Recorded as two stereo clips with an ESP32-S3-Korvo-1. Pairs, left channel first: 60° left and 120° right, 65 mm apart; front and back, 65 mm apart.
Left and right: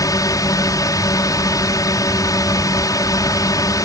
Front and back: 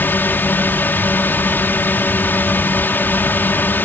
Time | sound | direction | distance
0.0 | a drone | 55° left | ?